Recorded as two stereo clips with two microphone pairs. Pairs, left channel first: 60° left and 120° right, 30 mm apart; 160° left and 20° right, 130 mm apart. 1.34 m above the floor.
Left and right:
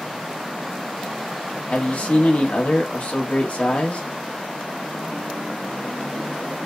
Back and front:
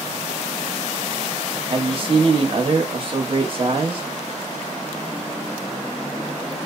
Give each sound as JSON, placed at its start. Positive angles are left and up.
{"t": 1.7, "sound": "a man speaking", "azimuth_deg": 30, "distance_m": 0.8}